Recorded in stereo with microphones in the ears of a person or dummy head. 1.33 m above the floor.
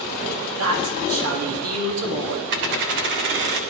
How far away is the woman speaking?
About 3 m.